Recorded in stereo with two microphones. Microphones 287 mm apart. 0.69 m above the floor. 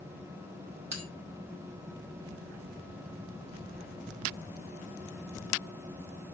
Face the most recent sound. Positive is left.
turn(degrees=-65)  # may be behind; listen again after turning